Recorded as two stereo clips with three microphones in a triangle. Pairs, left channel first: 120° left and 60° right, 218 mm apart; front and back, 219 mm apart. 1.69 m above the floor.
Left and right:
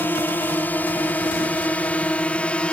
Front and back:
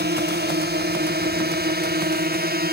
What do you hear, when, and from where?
0.0 s a drone: 160° right; by 2.7 s 155° right